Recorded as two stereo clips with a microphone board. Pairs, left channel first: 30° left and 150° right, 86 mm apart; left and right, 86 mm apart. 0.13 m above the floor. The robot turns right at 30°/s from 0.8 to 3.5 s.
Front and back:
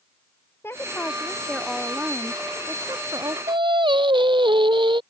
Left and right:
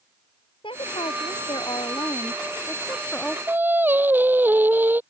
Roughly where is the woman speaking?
Left.